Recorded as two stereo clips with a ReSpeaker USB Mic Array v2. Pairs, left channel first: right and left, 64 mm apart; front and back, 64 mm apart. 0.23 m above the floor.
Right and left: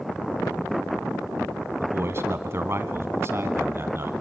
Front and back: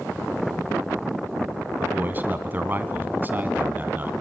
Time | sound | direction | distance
1.8 | a man speaking | 130° left | 1.5 m